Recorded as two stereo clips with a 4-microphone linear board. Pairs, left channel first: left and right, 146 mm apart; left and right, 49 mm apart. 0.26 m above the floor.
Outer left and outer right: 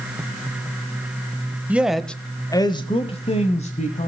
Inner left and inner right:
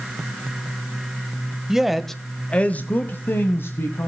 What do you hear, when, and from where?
1.7 s a man speaking: 10° right (ahead or behind), 1.0 m; by 4.1 s 55° left (ahead or behind), 1.7 m